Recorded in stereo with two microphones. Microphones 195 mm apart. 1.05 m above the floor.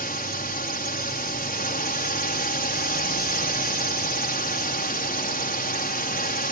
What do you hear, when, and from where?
0.0 s a drone: 50° left (ahead or behind)